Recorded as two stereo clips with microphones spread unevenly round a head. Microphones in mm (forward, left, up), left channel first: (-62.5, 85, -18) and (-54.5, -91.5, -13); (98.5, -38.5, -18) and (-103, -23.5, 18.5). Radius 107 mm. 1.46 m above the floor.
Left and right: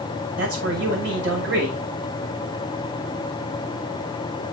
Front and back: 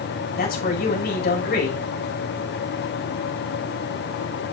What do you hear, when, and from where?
0.4 s a man speaking: 45° right, 6.5 m